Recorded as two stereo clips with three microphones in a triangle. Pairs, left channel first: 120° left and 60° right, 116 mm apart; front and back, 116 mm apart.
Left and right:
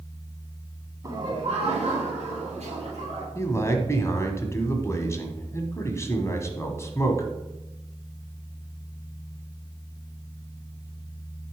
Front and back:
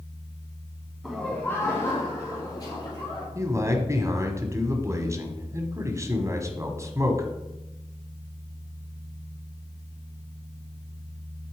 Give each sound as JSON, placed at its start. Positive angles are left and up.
{"t": 1.0, "sound": "laughter", "azimuth_deg": -100, "distance_m": 1.2}
{"t": 3.4, "sound": "a man speaking", "azimuth_deg": 155, "distance_m": 1.2}